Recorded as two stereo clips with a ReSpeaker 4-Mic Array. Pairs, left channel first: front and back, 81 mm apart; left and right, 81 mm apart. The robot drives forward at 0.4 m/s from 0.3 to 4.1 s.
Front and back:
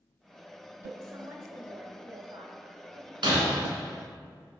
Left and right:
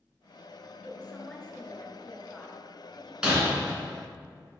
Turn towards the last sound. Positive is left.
turn(degrees=-170)